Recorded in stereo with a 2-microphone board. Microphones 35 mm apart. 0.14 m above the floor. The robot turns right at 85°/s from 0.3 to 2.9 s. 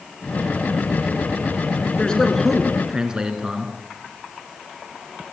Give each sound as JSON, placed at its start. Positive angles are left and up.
{"t": 2.0, "sound": "a man speaking", "azimuth_deg": 135, "distance_m": 1.9}